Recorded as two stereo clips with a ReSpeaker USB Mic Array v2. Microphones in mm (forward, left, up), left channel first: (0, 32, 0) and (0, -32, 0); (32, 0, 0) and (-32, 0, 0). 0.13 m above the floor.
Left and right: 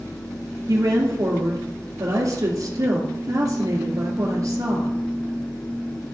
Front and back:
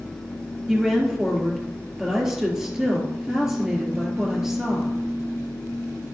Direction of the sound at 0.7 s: 100° right.